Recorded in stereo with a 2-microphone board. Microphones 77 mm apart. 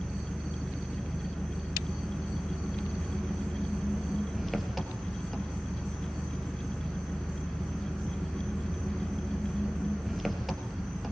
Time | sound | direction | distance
0.0 | an engine running | centre (ahead or behind) | 3 m